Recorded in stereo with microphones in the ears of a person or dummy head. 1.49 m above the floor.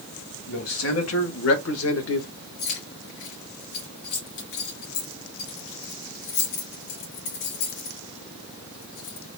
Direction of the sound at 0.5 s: 70° left (ahead or behind).